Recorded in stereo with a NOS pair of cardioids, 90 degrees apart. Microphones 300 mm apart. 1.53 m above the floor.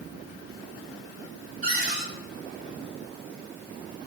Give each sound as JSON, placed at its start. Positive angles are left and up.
{"t": 1.6, "sound": "a cupboard door", "azimuth_deg": -45, "distance_m": 1.8}